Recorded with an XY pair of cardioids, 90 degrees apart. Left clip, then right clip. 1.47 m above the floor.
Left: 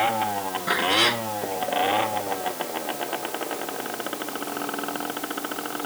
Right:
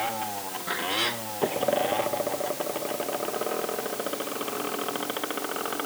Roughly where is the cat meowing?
Ahead left.